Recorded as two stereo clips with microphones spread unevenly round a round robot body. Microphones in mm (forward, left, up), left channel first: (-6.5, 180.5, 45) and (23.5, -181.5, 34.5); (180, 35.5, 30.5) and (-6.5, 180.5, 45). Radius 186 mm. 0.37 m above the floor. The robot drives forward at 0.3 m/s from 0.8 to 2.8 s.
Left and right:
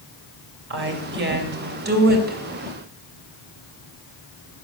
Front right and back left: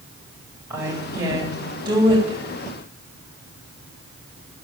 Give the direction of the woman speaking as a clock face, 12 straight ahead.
5 o'clock.